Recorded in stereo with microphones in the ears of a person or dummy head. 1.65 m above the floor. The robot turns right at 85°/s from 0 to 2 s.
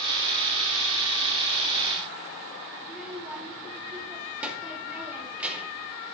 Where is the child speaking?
5° right (ahead or behind), 1.8 m.